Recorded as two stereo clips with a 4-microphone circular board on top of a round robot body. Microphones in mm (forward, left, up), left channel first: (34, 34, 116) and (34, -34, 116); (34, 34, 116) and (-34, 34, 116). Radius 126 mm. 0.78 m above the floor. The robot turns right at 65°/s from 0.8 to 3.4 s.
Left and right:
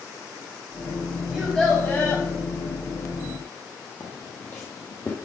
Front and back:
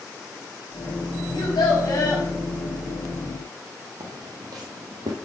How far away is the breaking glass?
I don't hear breaking glass.